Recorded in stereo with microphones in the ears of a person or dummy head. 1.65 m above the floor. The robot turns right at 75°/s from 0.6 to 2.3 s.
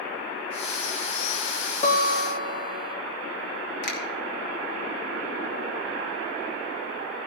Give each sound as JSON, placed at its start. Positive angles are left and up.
{"t": 1.8, "sound": "a guitar", "azimuth_deg": 40, "distance_m": 2.0}
{"t": 3.8, "sound": "a finger snap", "side_deg": 55, "distance_m": 2.5}